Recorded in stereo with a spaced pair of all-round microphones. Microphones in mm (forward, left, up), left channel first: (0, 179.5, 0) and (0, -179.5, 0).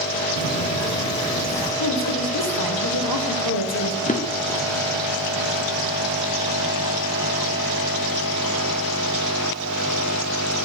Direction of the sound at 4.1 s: 20° left (ahead or behind).